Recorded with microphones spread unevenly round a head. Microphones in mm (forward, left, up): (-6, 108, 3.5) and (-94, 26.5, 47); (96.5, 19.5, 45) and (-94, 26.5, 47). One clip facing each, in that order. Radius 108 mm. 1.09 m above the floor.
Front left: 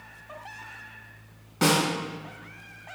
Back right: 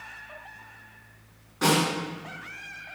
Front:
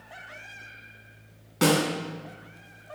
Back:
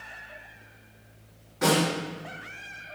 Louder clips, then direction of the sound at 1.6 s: Even, front 1 dB; straight ahead.